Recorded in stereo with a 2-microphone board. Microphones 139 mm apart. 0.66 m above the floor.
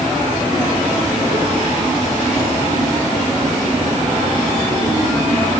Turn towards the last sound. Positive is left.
No sound to turn to.